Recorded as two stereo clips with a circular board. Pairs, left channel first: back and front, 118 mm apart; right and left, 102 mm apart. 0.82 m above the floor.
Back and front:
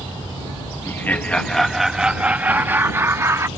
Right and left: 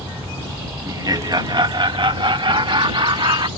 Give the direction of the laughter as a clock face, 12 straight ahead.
8 o'clock.